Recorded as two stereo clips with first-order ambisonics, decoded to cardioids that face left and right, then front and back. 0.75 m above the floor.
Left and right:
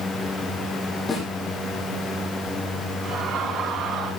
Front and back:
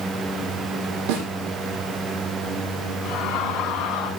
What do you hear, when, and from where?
1.1 s a snare drum: 170° left, 6.5 m
3.0 s laughter: 35° right, 8.5 m